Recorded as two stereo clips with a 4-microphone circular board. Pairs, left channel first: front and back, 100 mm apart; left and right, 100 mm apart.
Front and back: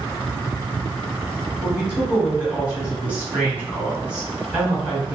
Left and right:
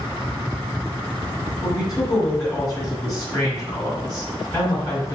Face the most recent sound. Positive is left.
turn(degrees=115)